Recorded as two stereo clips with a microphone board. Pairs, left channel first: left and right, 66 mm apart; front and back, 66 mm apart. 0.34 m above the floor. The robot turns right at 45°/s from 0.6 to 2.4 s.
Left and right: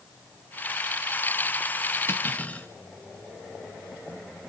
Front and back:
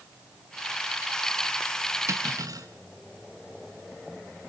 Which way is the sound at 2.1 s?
140° left.